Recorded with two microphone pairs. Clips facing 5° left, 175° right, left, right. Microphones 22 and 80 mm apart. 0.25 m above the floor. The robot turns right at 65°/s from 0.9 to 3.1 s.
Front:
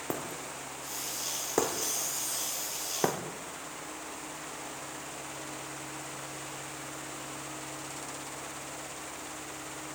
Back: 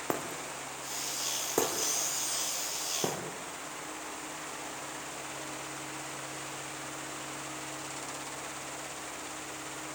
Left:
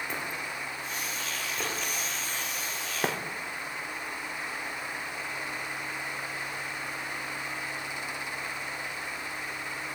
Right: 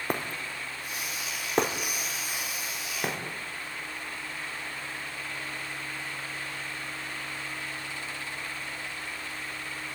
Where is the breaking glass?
120° right, 3.5 m; by 3.2 s 25° left, 3.5 m.